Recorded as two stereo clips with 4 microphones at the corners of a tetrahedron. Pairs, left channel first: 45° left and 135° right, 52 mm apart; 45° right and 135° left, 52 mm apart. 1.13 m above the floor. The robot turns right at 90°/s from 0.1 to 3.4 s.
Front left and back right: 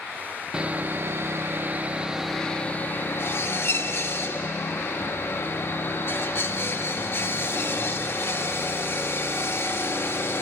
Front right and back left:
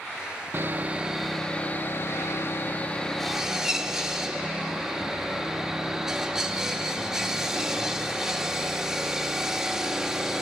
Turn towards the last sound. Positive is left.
turn(degrees=60)